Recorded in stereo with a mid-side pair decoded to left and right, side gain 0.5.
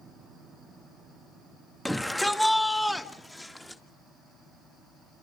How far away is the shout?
About 1.9 m.